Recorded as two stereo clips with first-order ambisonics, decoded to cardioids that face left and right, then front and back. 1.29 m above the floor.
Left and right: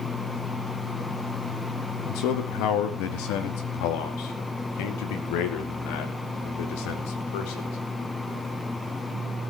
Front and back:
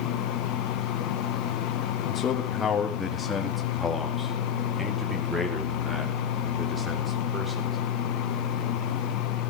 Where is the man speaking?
60° left, 1.8 m; by 7.8 s 100° left, 4.5 m.